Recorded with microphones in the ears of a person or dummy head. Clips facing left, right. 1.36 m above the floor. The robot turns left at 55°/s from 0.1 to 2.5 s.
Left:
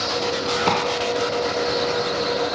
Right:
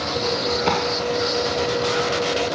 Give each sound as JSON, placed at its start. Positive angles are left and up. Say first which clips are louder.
{"t": 0.7, "sound": "a clap", "louder": "even", "side_deg": 0}